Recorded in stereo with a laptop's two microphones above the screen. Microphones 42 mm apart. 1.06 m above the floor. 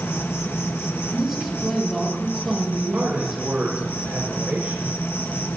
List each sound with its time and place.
0.0 s an insect: 65° left (ahead or behind), 1.3 m
1.1 s a woman speaking: centre (ahead or behind), 7.5 m
2.9 s a man speaking: 40° right (ahead or behind), 5 m